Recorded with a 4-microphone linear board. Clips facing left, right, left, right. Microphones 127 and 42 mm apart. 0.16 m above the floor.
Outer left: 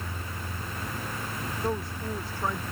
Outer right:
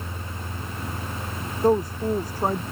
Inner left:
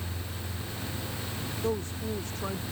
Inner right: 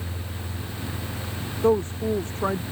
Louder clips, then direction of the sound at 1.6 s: Outer right 12 dB, inner right 11 dB; 40° right (ahead or behind).